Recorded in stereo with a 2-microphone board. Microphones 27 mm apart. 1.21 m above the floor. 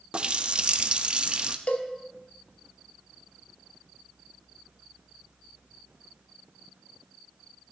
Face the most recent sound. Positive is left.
turn(degrees=55)  # may be behind; listen again after turning